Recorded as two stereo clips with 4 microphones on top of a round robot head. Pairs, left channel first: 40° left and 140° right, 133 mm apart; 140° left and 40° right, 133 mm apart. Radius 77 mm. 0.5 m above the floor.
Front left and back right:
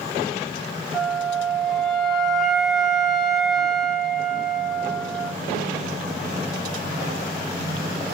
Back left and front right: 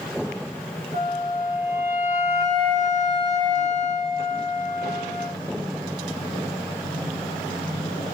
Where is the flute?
50° right, 3.5 m.